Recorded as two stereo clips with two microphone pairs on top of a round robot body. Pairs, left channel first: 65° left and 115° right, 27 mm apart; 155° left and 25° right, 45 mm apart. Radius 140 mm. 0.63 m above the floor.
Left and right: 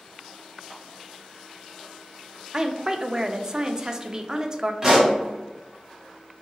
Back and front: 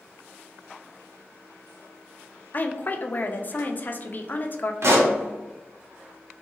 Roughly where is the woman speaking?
Behind.